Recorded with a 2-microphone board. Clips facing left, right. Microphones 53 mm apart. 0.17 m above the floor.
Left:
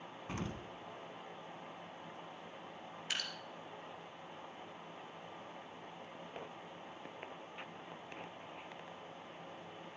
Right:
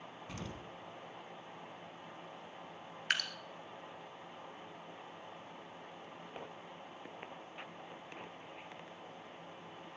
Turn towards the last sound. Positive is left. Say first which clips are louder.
# right 7 dB
turn(degrees=-60)  # may be behind; listen again after turning